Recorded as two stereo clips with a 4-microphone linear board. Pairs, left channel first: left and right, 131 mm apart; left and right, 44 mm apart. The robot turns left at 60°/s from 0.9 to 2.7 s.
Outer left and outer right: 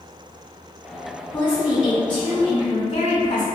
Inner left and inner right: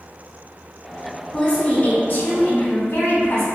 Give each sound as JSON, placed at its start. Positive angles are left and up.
{"t": 1.3, "sound": "a woman speaking", "azimuth_deg": 155, "distance_m": 1.9}